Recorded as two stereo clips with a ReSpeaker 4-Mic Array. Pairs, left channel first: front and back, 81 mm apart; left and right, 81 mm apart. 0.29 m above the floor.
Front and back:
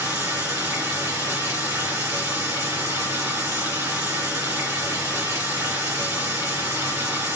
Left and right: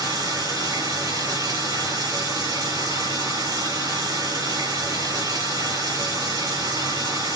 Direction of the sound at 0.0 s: 120° right.